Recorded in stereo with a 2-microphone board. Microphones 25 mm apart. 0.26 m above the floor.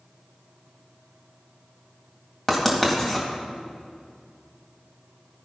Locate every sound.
2.5 s writing: 10° left (ahead or behind), 1.8 m